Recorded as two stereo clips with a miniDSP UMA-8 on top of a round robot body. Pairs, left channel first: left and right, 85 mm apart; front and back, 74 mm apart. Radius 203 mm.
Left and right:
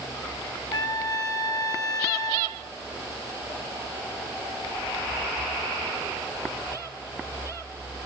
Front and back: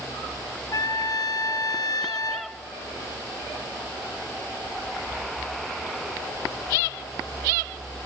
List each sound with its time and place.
0.7 s a trumpet: 45° left, 2 m